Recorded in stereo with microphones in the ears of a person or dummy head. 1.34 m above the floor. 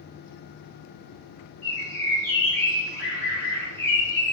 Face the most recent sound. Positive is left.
turn(degrees=5)  # may be behind; listen again after turning